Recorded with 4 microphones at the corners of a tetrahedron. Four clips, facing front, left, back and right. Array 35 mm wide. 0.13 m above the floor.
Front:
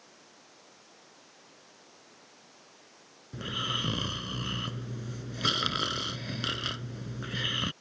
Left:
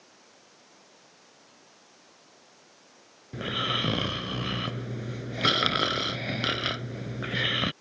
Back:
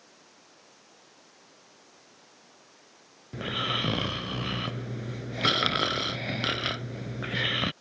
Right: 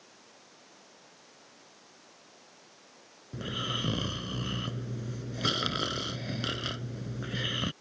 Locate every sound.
3.3 s snoring: 125° left